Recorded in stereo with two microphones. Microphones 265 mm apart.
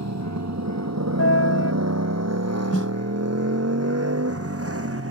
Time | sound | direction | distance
0.0 | a motorcycle | 90° right | ?
1.2 | a piano | 65° left (ahead or behind) | ?
2.7 | a snare drum | 60° left (ahead or behind) | ?